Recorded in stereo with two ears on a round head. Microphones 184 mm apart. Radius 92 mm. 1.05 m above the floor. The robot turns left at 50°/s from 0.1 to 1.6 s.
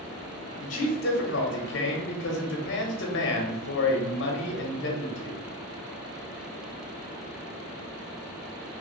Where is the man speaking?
140° left, 0.9 m; by 5.4 s 90° left, 0.9 m.